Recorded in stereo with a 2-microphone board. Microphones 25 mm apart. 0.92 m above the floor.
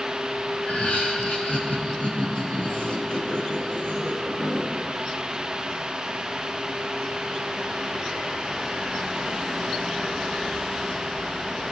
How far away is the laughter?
About 4.5 m.